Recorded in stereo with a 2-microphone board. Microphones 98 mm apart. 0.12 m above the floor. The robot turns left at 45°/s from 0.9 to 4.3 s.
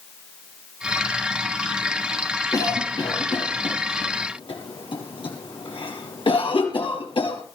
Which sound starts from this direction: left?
A cough, at 2.5 s.